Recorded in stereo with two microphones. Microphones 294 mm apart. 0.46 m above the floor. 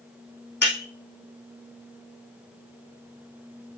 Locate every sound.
0.6 s breaking glass: 80° left, 3 m